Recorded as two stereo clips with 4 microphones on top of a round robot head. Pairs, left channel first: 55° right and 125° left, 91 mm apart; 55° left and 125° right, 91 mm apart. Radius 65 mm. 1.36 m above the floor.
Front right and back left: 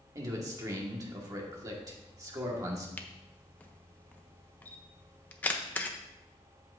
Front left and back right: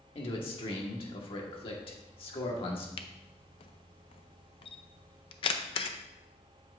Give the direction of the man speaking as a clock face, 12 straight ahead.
10 o'clock.